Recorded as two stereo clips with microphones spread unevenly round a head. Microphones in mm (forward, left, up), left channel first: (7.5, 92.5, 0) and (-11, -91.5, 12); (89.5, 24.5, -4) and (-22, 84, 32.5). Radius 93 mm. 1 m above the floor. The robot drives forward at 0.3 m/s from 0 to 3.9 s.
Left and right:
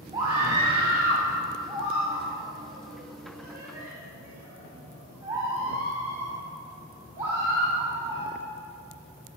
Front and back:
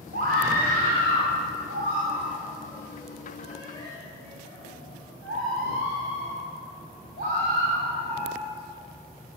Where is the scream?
165° right, 2 m; by 8.3 s 170° right, 3 m.